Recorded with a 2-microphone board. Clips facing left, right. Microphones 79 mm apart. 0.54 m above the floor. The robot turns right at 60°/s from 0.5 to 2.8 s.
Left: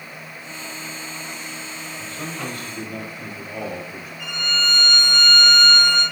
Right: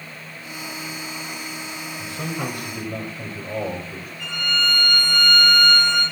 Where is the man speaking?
Straight behind, 3 m; by 4.1 s 130° right, 3 m.